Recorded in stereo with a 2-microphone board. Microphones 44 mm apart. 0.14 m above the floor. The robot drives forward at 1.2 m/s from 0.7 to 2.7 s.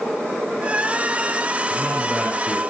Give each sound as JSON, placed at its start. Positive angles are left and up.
{"t": 1.7, "sound": "a man speaking", "side_deg": 25, "distance_m": 2.5}